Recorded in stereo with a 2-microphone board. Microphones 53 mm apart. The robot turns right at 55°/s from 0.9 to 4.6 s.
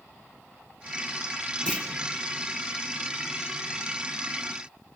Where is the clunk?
20° left (ahead or behind), 1.4 m; by 1.9 s 30° left (ahead or behind), 1.4 m.